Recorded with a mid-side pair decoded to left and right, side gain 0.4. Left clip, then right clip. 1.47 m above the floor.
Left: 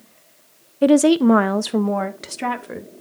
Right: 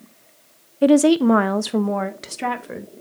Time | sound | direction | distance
0.8 | a woman speaking | 5° left | 0.5 m